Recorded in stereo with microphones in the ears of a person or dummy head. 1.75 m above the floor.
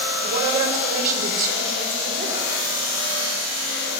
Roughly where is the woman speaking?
Right.